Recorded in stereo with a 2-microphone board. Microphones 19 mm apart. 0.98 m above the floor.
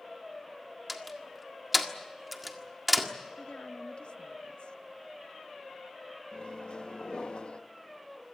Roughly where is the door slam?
Centre.